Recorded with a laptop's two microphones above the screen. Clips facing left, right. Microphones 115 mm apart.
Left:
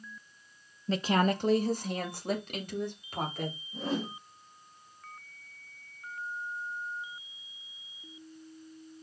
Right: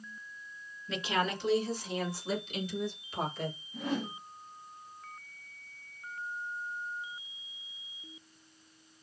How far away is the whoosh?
About 2 m.